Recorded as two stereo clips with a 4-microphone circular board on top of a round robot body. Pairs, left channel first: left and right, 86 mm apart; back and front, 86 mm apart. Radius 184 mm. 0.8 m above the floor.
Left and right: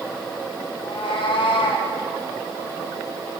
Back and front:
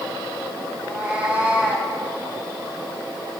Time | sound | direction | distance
0.8 | a cat meowing | 80° left | 1.8 m